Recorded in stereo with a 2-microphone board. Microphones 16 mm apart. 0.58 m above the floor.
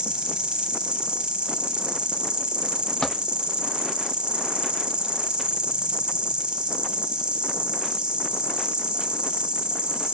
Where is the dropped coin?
65° left (ahead or behind), 2 m.